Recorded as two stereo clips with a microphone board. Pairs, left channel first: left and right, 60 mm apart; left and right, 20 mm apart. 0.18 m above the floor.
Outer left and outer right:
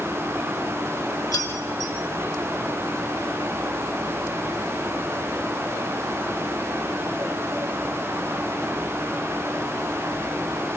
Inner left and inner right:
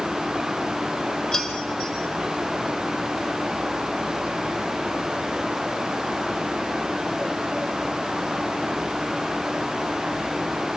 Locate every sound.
1.3 s keys jangling: 55° left (ahead or behind), 4.5 m